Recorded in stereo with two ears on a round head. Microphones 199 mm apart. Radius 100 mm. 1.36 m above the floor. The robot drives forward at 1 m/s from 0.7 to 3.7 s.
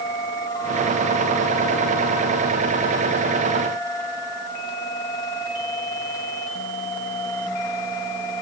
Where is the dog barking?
I don't hear a dog barking.